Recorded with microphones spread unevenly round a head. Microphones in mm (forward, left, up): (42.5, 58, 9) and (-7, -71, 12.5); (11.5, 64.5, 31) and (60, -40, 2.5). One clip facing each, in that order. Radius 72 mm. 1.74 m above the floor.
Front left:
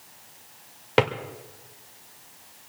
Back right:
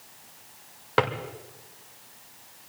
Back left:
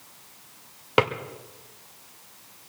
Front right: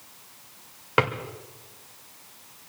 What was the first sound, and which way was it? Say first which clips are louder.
A drawer: front left 3 dB, back left 2 dB; 125° left.